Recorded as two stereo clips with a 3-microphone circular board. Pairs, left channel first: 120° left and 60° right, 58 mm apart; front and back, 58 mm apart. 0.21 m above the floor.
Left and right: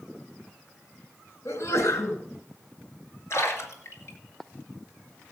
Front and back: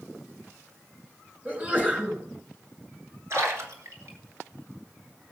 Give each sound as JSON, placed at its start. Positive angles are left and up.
{"t": 1.4, "sound": "a sneeze", "azimuth_deg": 120, "distance_m": 2.5}
{"t": 3.3, "sound": "a splash", "azimuth_deg": 150, "distance_m": 2.5}